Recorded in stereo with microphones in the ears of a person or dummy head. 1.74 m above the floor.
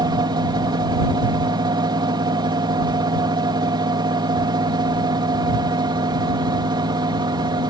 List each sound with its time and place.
0.0 s a fan: 20° right (ahead or behind)